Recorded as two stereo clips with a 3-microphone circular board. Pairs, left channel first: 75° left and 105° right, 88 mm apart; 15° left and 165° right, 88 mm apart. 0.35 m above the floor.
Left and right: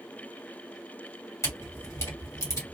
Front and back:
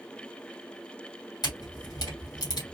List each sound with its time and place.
1.4 s a camera shutter: 30° left, 2 m